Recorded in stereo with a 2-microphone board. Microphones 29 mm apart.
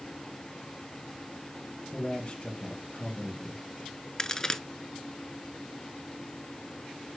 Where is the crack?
20° left (ahead or behind), 0.7 m.